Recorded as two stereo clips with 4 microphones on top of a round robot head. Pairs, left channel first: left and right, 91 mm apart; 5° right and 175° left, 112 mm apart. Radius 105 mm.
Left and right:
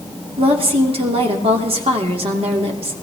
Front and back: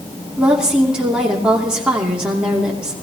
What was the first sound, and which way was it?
A woman speaking, 100° right.